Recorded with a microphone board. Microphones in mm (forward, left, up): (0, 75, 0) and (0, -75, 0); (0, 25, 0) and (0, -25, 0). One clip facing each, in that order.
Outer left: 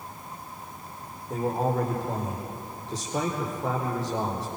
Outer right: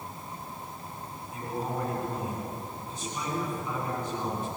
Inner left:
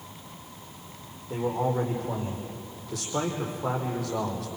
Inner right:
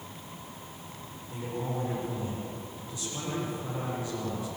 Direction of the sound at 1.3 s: 75° left (ahead or behind).